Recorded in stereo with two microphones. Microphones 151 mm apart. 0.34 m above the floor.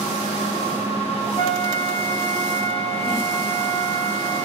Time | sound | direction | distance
1.4 | a flute | 35° left (ahead or behind) | 1.2 m